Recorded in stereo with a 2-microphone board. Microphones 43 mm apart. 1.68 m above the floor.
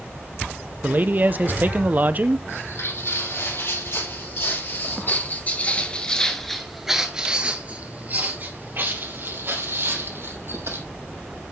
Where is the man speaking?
40° right (ahead or behind), 0.7 m.